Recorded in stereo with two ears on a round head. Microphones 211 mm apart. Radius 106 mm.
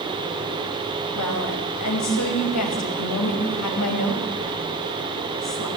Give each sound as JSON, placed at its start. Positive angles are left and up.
{"t": 1.1, "sound": "a woman speaking", "side_deg": 75, "distance_m": 6.0}